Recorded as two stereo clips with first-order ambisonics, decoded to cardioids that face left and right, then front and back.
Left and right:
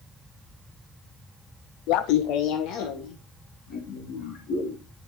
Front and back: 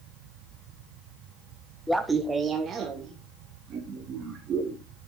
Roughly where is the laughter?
Left.